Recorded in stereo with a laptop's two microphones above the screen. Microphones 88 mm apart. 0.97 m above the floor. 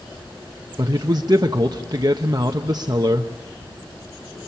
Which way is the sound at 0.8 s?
45° right (ahead or behind).